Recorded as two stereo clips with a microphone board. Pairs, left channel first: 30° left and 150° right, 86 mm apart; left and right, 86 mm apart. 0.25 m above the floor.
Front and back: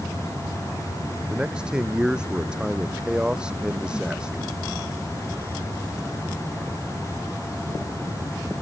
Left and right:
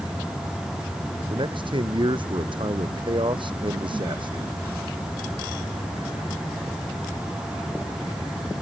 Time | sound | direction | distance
1.3 | a man speaking | 70° right | ?